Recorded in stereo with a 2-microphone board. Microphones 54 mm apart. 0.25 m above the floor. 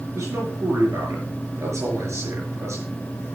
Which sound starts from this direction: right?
A man speaking, at 0.1 s.